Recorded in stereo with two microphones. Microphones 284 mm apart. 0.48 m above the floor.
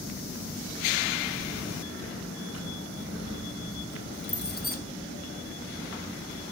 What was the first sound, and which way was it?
Keys jangling, 75° left (ahead or behind).